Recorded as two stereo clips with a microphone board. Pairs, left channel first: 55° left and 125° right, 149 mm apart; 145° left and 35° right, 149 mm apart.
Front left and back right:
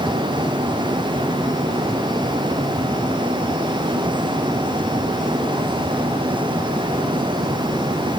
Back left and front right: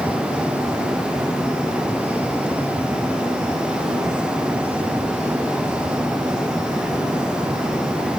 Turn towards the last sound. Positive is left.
No sound to turn to.